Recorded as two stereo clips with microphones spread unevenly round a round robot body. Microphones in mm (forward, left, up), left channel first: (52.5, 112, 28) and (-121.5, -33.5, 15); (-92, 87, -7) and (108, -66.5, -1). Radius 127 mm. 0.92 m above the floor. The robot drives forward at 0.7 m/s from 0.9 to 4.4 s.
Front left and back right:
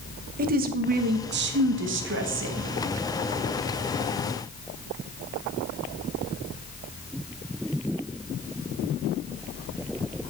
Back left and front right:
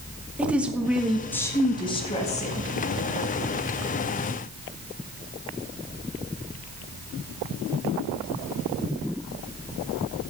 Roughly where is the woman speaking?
Behind right.